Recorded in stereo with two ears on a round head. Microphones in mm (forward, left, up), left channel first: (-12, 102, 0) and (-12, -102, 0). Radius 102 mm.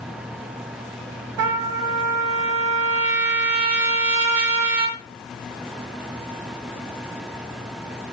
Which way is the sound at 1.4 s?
85° right.